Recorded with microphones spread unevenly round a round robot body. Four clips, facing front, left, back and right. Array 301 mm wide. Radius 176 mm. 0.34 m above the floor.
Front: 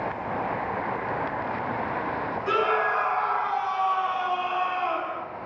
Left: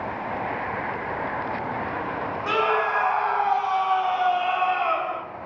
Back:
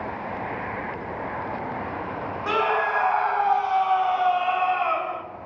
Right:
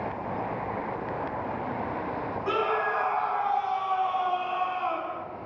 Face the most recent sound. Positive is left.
turn(degrees=120)